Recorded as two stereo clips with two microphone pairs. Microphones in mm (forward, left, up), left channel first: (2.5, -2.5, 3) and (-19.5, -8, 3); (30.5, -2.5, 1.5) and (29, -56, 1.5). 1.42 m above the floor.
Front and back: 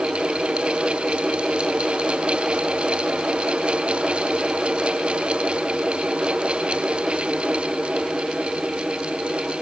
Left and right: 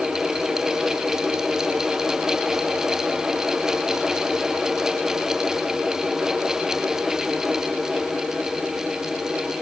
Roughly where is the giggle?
No giggle in this recording.